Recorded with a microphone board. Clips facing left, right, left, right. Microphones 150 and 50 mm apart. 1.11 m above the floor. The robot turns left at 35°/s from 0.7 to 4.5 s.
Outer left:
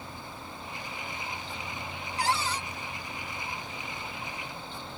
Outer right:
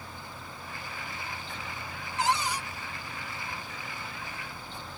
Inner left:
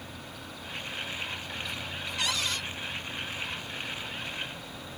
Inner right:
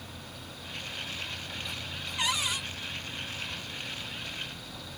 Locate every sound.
2.2 s a cupboard door: 25° right (ahead or behind); by 2.6 s 10° right (ahead or behind)